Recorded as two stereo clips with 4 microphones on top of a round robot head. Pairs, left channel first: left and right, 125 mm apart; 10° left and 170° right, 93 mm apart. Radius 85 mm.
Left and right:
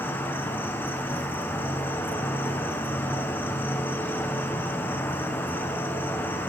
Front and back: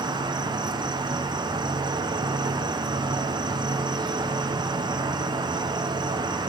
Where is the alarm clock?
No alarm clock in this recording.